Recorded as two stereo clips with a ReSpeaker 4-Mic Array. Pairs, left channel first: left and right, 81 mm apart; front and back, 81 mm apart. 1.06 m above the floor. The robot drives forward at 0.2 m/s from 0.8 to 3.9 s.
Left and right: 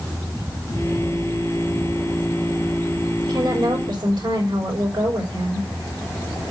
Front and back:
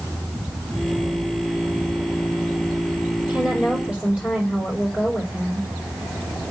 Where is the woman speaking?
105° right, 4 m.